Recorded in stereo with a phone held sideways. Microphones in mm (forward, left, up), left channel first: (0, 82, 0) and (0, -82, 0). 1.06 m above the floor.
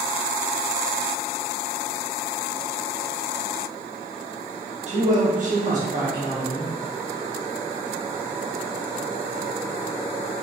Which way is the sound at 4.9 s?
45° right (ahead or behind).